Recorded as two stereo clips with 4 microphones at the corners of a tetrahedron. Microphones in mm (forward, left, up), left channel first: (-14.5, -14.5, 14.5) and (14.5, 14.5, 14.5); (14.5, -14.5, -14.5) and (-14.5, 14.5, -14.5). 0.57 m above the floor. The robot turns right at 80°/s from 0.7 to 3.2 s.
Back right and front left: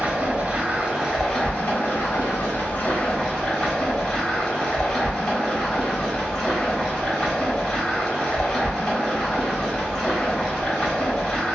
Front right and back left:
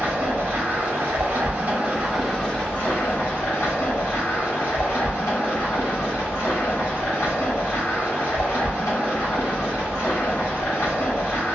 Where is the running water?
105° left, 1.5 m; by 11.6 s 55° right, 1.5 m.